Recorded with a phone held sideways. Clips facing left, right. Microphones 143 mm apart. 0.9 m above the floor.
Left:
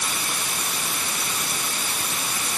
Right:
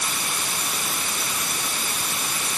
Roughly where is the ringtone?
No ringtone in this recording.